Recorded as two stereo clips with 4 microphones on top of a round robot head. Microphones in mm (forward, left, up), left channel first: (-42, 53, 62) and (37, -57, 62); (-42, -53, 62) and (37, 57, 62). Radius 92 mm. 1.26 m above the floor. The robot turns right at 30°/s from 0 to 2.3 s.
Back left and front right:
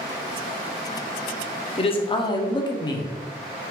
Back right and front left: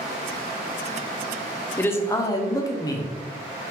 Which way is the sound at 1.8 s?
160° left.